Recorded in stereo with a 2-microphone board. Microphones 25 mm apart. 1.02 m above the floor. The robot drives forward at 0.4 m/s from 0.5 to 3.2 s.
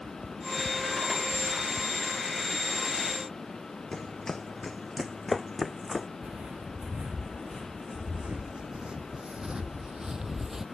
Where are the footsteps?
50° right (ahead or behind); by 10.7 s 15° right (ahead or behind).